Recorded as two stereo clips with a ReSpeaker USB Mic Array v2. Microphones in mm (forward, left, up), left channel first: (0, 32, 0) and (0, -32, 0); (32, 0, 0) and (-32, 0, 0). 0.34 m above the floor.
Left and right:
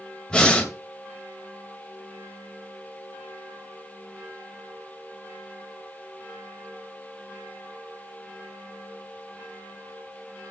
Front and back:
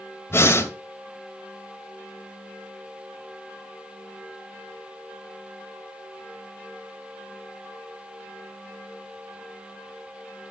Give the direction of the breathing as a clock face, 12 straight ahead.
11 o'clock.